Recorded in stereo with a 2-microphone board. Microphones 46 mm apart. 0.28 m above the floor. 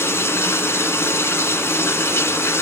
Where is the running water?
70° left (ahead or behind), 1.5 m.